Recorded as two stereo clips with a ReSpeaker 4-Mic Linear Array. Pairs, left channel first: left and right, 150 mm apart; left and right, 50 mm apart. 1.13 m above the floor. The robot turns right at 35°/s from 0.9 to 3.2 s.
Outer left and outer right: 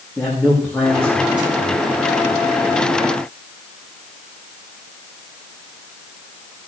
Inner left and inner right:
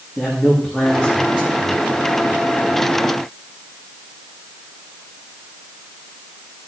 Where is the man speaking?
175° left, 2.5 m; by 1.8 s 155° right, 2.5 m.